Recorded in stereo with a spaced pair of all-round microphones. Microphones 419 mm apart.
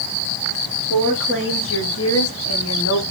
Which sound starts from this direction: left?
A woman speaking, at 0.9 s.